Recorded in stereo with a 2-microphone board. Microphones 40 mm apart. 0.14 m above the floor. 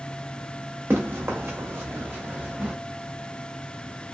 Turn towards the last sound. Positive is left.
turn(degrees=-30)  # may be behind; listen again after turning